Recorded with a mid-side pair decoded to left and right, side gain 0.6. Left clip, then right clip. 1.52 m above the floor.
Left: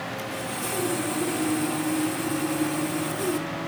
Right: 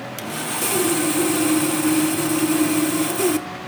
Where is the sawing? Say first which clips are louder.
Right 5 dB; 65° right, 1.4 m.